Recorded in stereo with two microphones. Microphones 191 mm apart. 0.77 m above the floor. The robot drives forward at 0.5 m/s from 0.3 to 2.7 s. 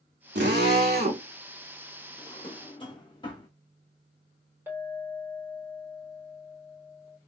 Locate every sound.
0.3 s a drill: 70° right (ahead or behind), 1.2 m; by 1.2 s 50° right (ahead or behind), 1.4 m
2.2 s a drawer: 30° left (ahead or behind), 1.0 m; by 3.5 s 25° left (ahead or behind), 1.2 m
4.7 s a clink: 10° right (ahead or behind), 2.5 m